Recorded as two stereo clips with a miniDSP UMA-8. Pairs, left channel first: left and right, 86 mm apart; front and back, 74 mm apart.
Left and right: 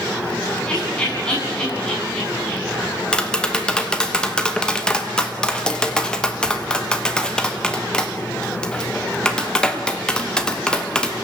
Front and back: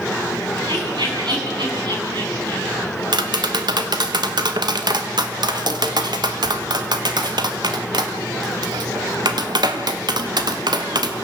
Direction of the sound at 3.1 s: 170° left.